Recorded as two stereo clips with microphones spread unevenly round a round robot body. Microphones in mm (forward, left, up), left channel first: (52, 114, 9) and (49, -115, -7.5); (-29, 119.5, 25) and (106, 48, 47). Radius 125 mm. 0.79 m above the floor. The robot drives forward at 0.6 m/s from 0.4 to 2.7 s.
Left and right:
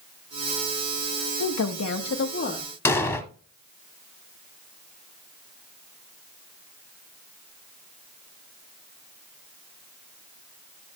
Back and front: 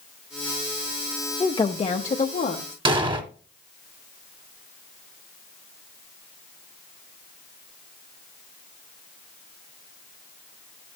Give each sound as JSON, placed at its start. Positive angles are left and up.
{"t": 1.4, "sound": "a woman speaking", "azimuth_deg": 95, "distance_m": 0.6}
{"t": 2.9, "sound": "an explosion", "azimuth_deg": 15, "distance_m": 0.9}